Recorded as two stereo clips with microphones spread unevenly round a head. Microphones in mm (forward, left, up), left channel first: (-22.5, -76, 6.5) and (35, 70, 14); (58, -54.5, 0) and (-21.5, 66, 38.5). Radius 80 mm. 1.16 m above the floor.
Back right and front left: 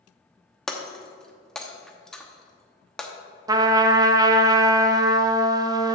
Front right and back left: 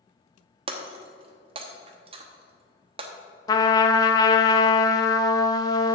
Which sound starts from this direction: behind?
Breaking glass, at 0.7 s.